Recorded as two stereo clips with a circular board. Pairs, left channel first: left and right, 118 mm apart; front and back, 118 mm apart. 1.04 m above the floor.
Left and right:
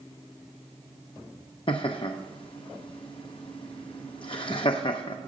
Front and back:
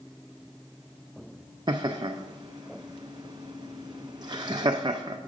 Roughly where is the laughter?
Behind left.